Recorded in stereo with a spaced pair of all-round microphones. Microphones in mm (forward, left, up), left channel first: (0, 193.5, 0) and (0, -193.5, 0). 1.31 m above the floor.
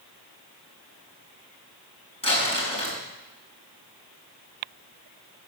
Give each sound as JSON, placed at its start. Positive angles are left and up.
{"t": 2.2, "sound": "crumpling", "side_deg": 15, "distance_m": 6.0}